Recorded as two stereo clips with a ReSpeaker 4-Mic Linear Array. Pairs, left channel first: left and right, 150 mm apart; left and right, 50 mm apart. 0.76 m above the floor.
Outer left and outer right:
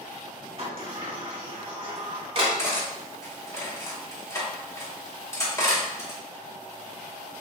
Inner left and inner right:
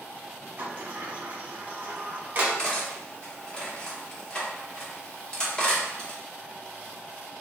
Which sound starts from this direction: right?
A sliding door, at 0.6 s.